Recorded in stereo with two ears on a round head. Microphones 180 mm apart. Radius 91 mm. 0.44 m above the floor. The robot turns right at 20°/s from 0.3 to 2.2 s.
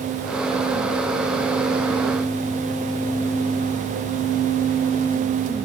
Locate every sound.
Only background noise.